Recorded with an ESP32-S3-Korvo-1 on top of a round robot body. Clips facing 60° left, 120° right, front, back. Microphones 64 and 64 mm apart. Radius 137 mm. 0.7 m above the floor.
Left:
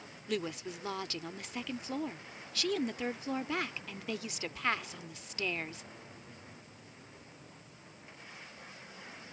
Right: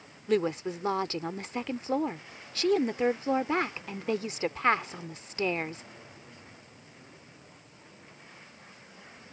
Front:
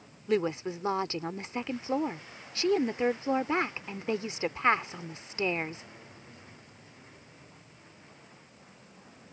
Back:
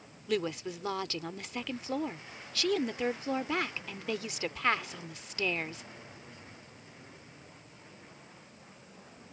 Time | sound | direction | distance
0.3 | a woman speaking | 60° right | ?